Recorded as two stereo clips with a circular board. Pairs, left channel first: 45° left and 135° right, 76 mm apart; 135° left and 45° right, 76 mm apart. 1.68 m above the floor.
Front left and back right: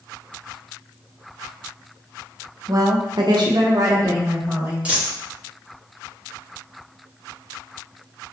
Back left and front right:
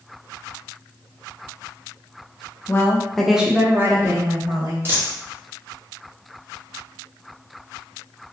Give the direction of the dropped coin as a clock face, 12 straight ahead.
2 o'clock.